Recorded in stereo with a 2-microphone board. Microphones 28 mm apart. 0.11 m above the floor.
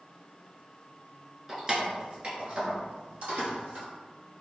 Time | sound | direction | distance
1.5 | keys jangling | 10° right (ahead or behind) | 0.8 m